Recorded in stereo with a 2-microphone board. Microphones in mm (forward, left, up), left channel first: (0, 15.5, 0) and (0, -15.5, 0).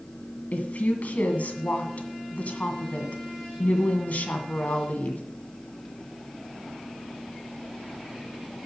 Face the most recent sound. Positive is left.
turn(degrees=55)  # may be behind; listen again after turning